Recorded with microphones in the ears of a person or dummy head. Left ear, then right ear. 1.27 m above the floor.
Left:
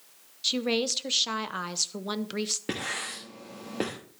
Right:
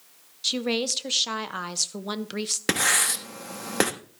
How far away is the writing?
About 1.1 m.